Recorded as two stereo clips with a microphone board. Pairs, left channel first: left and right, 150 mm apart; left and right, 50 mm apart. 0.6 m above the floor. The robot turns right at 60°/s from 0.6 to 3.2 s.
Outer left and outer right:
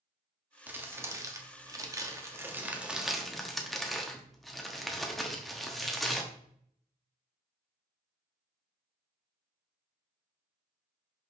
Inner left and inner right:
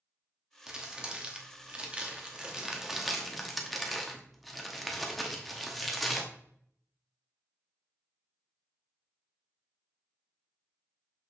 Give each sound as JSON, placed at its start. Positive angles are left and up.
{"t": 0.7, "sound": "crumpling", "side_deg": -10, "distance_m": 1.0}